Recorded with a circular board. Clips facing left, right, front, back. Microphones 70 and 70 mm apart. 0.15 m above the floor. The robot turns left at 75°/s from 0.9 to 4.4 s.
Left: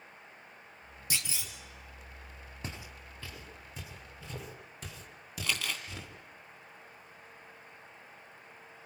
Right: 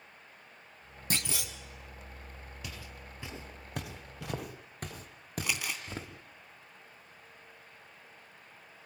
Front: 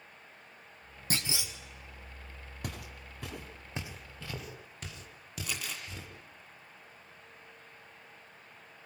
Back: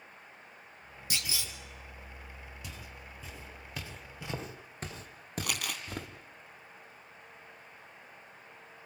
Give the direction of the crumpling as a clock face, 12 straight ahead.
5 o'clock.